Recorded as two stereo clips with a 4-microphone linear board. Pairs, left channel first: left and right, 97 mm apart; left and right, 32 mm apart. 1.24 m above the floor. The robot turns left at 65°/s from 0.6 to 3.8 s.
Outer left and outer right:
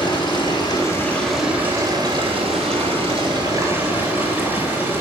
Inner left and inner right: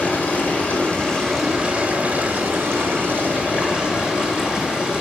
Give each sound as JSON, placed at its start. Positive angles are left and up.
{"t": 0.0, "sound": "running water", "azimuth_deg": 50, "distance_m": 4.0}